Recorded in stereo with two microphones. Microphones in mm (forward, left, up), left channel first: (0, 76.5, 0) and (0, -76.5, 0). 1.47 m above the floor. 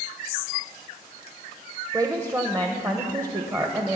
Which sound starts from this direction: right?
A woman speaking, at 1.9 s.